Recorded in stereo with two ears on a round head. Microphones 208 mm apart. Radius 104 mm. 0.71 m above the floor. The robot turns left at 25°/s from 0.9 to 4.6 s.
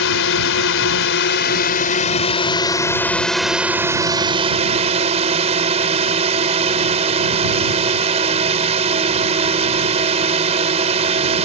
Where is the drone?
65° left; by 11.5 s 30° right.